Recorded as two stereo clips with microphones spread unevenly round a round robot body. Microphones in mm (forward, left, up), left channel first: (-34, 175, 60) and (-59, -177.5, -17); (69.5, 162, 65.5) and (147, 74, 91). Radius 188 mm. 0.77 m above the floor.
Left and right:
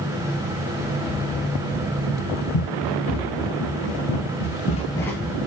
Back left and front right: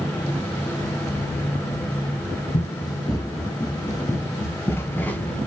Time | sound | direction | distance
2.5 | running footsteps | 75° left | 1.7 m